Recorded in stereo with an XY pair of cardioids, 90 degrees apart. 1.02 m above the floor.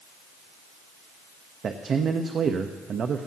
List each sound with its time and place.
1.6 s a man speaking: 55° right, 0.9 m